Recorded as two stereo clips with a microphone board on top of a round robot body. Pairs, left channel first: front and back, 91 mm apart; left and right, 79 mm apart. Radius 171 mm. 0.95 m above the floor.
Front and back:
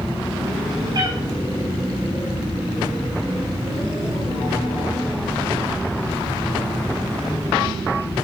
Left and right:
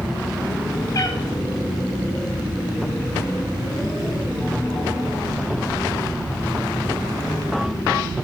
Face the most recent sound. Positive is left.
turn(degrees=135)